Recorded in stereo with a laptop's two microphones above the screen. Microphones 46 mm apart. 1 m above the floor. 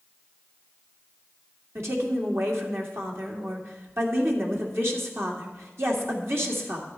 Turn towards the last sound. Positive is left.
turn(degrees=-60)  # may be behind; listen again after turning